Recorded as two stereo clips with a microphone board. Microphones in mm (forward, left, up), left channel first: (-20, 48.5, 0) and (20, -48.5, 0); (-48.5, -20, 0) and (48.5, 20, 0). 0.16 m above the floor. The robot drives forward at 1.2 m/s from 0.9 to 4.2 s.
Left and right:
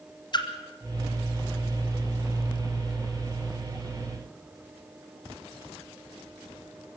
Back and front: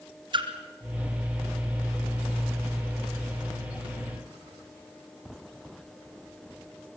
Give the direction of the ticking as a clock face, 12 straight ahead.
I don't hear ticking.